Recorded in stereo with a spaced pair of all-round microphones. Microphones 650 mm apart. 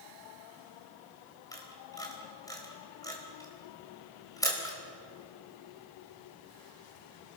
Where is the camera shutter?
5° left (ahead or behind), 4.5 m.